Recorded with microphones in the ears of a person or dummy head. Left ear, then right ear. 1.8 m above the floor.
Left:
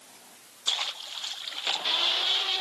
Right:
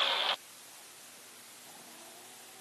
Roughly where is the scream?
I don't hear a scream.